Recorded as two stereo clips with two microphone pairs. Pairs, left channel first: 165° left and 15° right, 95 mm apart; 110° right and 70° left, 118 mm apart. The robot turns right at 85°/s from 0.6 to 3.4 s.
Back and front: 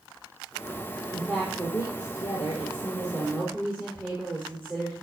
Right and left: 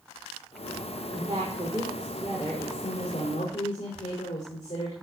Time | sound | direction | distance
1.1 | a woman speaking | 45° left | 5 m